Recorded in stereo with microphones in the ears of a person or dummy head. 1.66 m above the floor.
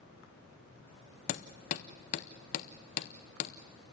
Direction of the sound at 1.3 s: 40° left (ahead or behind).